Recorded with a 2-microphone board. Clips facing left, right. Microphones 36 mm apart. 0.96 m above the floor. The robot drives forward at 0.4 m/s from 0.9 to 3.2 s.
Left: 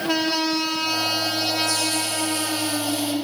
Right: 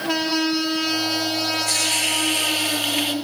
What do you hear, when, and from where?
1.7 s a hiss: 70° right (ahead or behind), 2 m; by 3.1 s 65° right (ahead or behind), 2.5 m